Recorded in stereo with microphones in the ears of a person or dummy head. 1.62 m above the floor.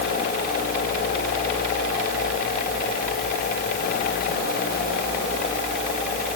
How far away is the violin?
No violin in this recording.